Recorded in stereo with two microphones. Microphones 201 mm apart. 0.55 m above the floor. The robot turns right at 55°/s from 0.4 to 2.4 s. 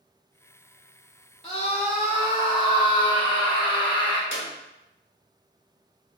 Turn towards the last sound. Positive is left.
turn(degrees=60)  # may be behind; listen again after turning